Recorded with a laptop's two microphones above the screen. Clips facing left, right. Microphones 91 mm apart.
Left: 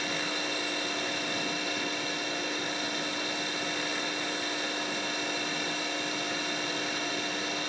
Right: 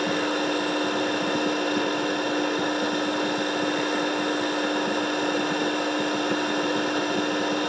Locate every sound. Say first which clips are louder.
0.0 s a machine running: right 9 dB; 55° right (ahead or behind), 1.0 m